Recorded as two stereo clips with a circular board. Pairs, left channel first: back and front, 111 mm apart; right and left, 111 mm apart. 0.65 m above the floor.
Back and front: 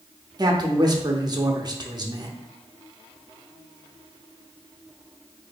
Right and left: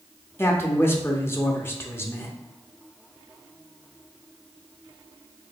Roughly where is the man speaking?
Ahead right.